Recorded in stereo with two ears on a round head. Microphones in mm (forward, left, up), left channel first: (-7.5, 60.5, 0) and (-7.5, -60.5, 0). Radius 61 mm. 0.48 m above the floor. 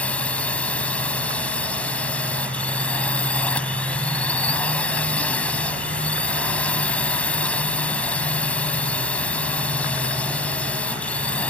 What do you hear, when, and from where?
0.0 s a drone: 10° left (ahead or behind)